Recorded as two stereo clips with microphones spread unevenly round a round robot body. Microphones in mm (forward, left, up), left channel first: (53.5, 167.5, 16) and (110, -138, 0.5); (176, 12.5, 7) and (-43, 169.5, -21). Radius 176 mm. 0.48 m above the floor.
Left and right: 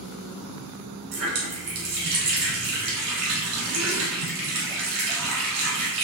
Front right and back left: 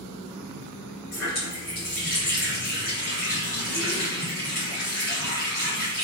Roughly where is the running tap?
Behind right.